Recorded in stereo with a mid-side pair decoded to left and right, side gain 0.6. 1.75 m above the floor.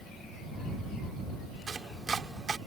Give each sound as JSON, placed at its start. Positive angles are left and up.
{"t": 1.7, "sound": "chopping", "azimuth_deg": -30}